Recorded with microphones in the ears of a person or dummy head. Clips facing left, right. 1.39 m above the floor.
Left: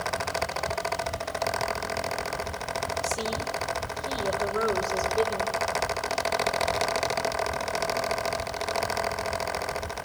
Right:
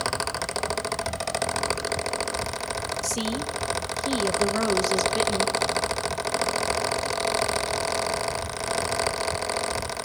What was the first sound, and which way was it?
A woman speaking, 80° right.